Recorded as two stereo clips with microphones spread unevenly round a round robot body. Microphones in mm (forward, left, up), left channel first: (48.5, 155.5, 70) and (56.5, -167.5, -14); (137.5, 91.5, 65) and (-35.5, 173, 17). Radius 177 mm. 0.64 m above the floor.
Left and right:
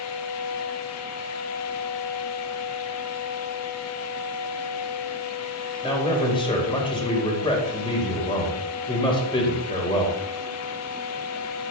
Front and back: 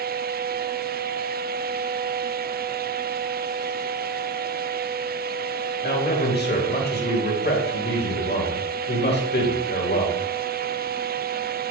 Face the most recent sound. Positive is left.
turn(degrees=10)